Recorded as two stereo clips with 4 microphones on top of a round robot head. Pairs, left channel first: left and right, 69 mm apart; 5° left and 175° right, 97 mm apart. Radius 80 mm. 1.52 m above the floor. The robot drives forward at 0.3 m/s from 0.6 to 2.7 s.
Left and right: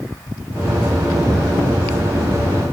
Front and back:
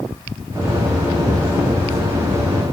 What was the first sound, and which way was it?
Only background noise.